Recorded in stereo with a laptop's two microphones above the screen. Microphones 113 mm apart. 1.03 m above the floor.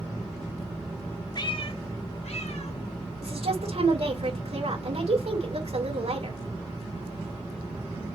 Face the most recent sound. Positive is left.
turn(degrees=-70)  # may be behind; listen again after turning